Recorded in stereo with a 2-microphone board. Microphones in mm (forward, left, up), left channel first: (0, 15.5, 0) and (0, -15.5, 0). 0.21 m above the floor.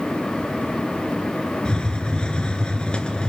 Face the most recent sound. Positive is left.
turn(degrees=30)  # may be behind; listen again after turning